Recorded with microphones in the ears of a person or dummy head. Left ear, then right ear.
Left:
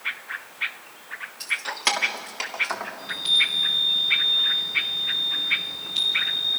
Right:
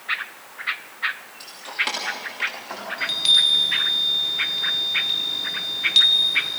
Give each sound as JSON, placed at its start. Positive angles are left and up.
{"t": 1.4, "sound": "keys jangling", "side_deg": 20, "distance_m": 2.5}
{"t": 3.0, "sound": "a chime", "side_deg": -45, "distance_m": 4.0}